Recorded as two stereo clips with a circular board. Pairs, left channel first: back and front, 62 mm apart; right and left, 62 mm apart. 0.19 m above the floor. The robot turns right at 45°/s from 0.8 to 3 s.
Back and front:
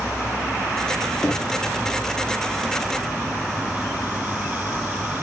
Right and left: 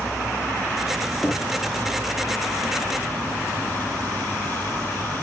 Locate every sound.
1.2 s knocking: 150° right, 0.7 m; by 1.5 s 140° right, 0.7 m